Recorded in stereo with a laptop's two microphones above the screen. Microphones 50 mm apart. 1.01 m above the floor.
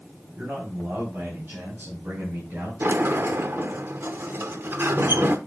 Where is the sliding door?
50° right (ahead or behind), 0.9 m.